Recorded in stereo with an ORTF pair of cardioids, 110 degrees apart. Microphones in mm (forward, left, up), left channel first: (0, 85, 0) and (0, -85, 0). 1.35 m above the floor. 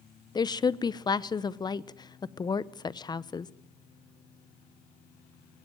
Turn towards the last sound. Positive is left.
turn(degrees=25)